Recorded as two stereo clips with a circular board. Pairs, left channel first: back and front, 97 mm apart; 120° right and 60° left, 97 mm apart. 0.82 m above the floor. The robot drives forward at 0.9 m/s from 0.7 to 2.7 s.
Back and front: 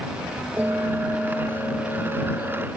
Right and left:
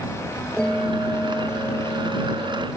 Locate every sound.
0.6 s a bell: 45° right; by 2.7 s 165° right